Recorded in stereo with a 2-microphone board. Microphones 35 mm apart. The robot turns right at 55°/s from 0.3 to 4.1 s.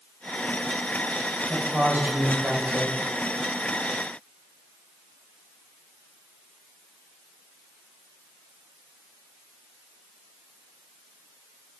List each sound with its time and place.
1.5 s a woman speaking: 160° right, 2 m; by 3.0 s 75° right, 2 m